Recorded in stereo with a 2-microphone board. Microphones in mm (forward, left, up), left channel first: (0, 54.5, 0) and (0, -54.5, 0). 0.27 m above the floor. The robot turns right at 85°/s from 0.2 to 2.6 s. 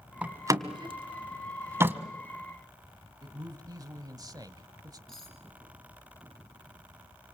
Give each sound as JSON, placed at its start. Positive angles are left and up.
{"t": 0.2, "sound": "a door slam", "side_deg": -15, "distance_m": 1.8}
{"t": 3.2, "sound": "a man speaking", "side_deg": -40, "distance_m": 1.4}
{"t": 5.1, "sound": "cutlery clinking", "side_deg": 5, "distance_m": 5.5}